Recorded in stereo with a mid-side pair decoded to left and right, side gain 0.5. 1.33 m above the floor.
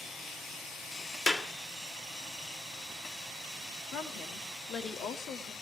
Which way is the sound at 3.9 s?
60° left.